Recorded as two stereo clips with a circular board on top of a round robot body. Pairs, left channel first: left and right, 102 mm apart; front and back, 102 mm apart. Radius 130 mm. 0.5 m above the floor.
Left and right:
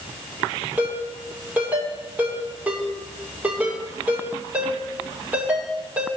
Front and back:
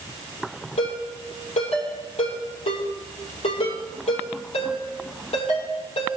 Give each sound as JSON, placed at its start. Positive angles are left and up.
{"t": 0.8, "sound": "a ringtone", "azimuth_deg": -15, "distance_m": 6.5}